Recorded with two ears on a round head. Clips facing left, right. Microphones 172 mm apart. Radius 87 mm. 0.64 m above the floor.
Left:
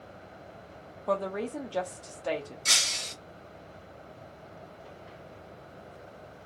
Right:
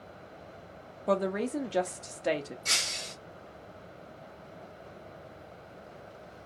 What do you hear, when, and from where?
1.1 s a woman speaking: 20° right (ahead or behind), 0.5 m
2.6 s breaking glass: 60° left (ahead or behind), 1.3 m